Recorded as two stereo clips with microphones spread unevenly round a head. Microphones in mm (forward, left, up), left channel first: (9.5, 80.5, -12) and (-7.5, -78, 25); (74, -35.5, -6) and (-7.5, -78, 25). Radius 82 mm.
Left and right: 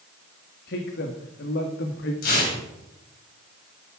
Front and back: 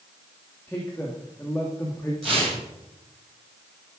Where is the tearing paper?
115° left, 6.5 m.